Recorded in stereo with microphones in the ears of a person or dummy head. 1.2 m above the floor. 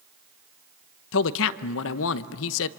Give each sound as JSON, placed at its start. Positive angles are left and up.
{"t": 1.1, "sound": "a man speaking", "side_deg": 70, "distance_m": 0.8}